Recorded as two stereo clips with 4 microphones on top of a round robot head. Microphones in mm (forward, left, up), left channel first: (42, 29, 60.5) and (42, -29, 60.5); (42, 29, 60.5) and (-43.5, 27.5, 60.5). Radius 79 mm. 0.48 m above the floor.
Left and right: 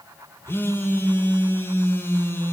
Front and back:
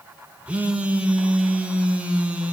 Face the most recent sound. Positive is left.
turn(degrees=115)